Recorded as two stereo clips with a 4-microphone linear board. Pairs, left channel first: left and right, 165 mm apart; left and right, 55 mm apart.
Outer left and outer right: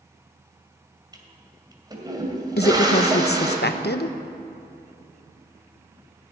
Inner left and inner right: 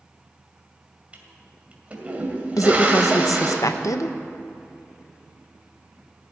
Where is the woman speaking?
80° left, 0.8 m.